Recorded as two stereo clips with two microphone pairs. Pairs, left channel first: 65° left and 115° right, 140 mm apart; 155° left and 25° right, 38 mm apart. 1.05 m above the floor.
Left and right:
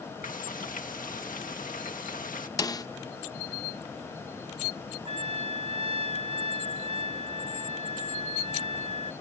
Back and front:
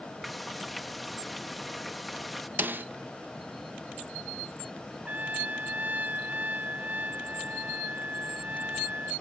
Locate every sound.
0.2 s frying: 60° left
2.6 s a snare drum: 5° left
5.0 s a trumpet: 70° right